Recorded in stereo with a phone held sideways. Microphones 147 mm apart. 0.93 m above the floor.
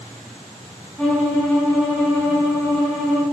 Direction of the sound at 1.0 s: 5° left (ahead or behind).